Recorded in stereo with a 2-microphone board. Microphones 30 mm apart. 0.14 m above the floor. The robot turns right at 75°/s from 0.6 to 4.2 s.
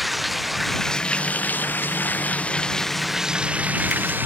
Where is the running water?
Straight ahead; by 4.3 s 90° right.